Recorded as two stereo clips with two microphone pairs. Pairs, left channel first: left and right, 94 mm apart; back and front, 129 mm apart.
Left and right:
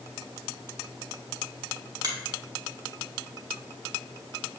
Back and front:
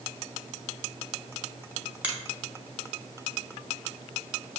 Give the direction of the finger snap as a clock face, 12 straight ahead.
2 o'clock.